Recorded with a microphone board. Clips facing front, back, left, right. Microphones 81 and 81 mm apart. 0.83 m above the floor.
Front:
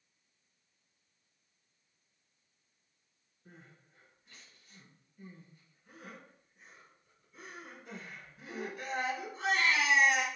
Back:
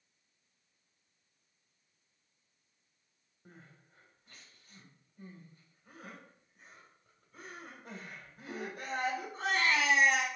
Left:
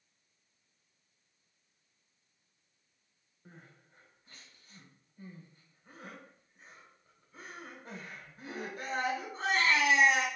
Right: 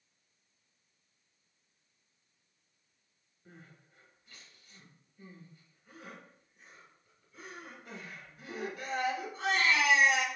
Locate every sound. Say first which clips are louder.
3.5 s crying: even, even; 145° left, 1.3 m